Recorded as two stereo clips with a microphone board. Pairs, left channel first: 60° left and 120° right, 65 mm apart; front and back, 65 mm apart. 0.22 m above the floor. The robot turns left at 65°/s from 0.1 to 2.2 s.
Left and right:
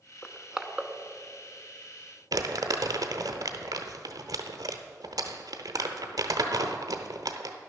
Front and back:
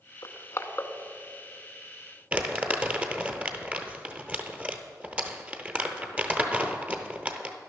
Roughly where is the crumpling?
Right.